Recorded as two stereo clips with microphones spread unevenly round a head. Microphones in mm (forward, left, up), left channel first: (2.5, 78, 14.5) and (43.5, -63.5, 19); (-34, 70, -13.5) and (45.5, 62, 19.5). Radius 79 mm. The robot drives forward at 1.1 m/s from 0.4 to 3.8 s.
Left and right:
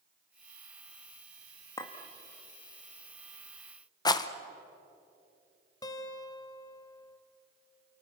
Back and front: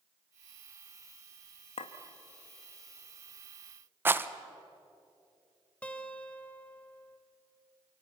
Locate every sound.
1.8 s a clink: 175° left, 1.5 m; by 1.9 s straight behind, 1.6 m
4.0 s a rattle: 45° left, 1.0 m
5.8 s a guitar: 70° left, 1.4 m